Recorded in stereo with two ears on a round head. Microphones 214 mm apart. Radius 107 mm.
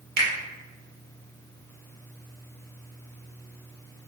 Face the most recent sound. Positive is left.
turn(degrees=-45)  # may be behind; listen again after turning